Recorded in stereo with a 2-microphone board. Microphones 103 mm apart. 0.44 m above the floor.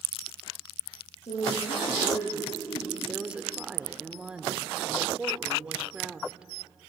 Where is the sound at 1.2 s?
70° left (ahead or behind), 10 m; by 3.0 s 80° left, 9 m.